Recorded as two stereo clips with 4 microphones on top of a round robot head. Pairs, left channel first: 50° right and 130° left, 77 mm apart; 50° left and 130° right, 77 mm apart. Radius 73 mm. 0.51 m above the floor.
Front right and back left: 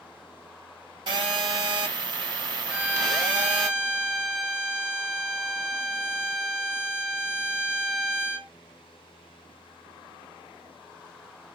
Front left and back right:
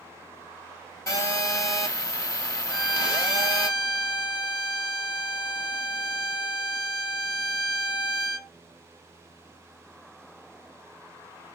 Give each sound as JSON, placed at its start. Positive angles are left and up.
{"t": 1.1, "sound": "a phone buzzing", "azimuth_deg": 100, "distance_m": 1.7}
{"t": 2.7, "sound": "a violin", "azimuth_deg": 50, "distance_m": 1.2}